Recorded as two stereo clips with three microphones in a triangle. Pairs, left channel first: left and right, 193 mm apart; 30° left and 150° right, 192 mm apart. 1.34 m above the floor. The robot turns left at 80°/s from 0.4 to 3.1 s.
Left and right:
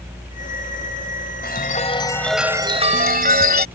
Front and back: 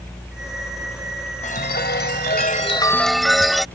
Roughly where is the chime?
Left.